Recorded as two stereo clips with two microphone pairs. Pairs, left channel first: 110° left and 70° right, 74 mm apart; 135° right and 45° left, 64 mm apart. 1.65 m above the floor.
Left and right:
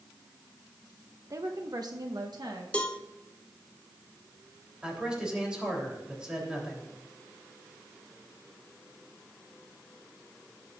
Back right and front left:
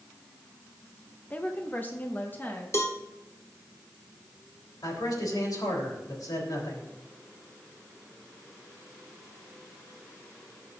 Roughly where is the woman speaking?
Right.